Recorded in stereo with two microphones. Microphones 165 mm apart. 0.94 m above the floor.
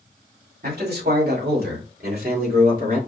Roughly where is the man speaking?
Right.